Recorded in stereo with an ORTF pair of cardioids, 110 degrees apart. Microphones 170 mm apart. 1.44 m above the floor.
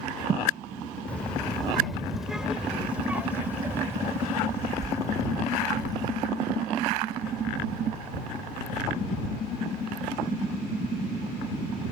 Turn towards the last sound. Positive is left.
turn(degrees=-25)